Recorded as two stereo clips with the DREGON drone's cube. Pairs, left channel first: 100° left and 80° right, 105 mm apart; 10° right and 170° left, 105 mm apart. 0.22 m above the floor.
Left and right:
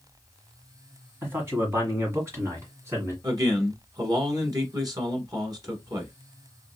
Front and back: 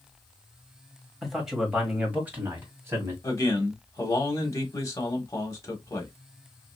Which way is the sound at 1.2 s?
100° right.